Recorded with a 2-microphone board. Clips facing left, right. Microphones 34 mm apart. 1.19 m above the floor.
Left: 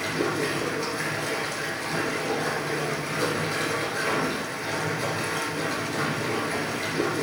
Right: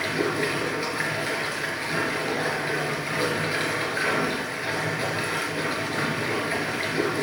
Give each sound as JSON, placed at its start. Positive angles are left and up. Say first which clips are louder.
{"t": 0.0, "sound": "running water", "louder": "right 1 dB", "side_deg": -25, "distance_m": 2.5}